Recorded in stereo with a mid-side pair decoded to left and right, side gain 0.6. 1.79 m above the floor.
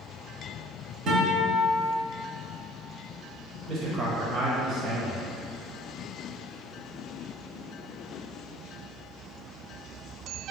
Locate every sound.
1.1 s a guitar: 55° right, 0.8 m
3.7 s a man speaking: 55° right, 0.8 m